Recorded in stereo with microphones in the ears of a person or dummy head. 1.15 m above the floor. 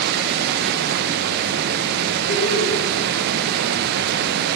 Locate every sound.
0.0 s running water: 55° right (ahead or behind), 0.8 m
2.3 s laughter: 65° left (ahead or behind), 3.5 m